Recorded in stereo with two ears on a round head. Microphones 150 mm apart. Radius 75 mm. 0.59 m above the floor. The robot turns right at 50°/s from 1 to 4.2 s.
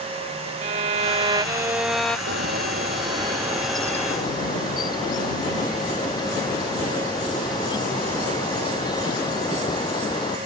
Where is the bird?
75° right; by 10.4 s 25° left.